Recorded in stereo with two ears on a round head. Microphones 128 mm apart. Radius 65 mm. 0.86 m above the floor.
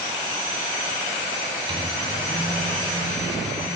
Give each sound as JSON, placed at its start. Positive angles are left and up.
{"t": 1.7, "sound": "a microwave", "side_deg": -35, "distance_m": 2.5}